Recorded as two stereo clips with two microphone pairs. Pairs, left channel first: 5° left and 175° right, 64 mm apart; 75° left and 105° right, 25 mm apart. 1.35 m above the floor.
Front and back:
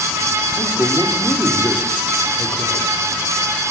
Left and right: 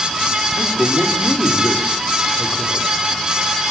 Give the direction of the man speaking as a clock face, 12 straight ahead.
10 o'clock.